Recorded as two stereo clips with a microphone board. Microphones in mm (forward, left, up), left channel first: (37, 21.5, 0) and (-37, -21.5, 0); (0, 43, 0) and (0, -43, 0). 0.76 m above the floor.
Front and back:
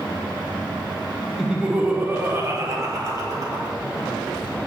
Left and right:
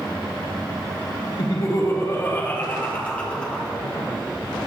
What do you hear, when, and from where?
1.4 s laughter: 125° left, 1.2 m; by 3.8 s 170° left, 2.5 m